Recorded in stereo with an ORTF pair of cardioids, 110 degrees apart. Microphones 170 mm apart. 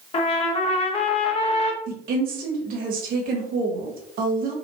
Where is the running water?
I don't hear running water.